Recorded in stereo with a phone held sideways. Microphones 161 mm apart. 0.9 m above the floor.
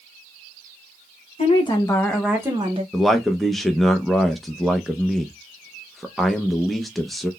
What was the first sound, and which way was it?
A woman speaking, 40° left (ahead or behind).